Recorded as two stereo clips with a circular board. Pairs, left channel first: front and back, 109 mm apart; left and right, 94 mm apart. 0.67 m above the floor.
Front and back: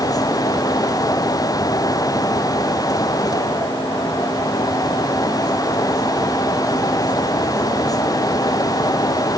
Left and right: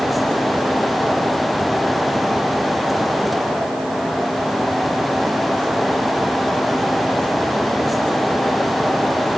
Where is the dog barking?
I don't hear a dog barking.